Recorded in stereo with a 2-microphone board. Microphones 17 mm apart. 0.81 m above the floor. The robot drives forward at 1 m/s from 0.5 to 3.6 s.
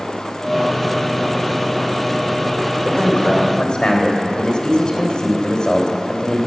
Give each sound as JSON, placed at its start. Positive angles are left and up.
{"t": 2.9, "sound": "a man speaking", "side_deg": 50, "distance_m": 2.5}